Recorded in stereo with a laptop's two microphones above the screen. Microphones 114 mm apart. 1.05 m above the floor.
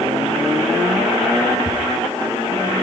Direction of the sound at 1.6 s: 55° left (ahead or behind).